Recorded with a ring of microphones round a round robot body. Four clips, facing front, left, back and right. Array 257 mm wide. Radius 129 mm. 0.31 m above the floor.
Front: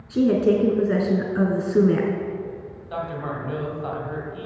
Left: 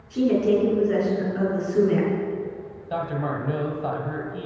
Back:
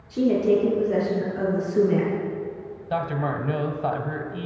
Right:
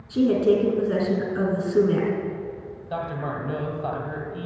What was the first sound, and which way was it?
A woman speaking, 15° right.